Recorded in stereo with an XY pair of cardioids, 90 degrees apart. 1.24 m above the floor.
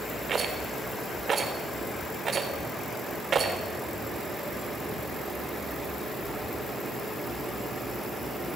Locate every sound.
0.3 s a rattle: 50° right, 3.5 m